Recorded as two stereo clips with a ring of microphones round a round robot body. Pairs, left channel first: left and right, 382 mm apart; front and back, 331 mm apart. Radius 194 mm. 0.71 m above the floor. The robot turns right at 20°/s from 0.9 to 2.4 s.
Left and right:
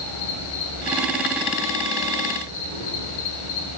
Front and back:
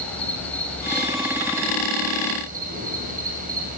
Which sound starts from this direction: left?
An insect, at 0.0 s.